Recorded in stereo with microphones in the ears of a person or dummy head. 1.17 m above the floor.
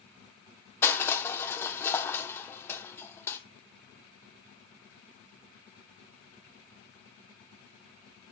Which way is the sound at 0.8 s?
15° left (ahead or behind).